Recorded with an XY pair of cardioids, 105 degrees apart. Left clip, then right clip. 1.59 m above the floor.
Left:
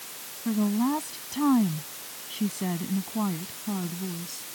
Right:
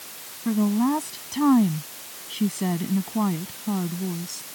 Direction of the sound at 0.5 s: 20° right.